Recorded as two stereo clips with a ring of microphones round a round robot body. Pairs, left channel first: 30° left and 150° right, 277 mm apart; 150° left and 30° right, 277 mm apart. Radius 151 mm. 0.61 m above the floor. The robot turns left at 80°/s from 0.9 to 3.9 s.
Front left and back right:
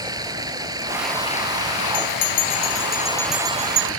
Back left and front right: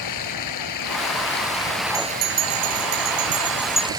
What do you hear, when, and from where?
0.0 s running water: 135° left; by 4.0 s 105° right
1.9 s a bell: 30° left; by 3.9 s 130° right